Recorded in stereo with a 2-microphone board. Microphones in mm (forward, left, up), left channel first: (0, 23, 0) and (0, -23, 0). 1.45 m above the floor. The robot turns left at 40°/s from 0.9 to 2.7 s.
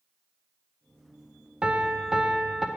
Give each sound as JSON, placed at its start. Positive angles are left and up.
{"t": 1.6, "sound": "a piano", "azimuth_deg": -130, "distance_m": 0.5}